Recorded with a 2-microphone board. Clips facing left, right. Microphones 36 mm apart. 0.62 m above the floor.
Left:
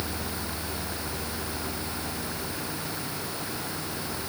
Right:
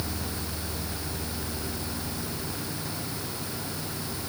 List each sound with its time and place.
Only background noise.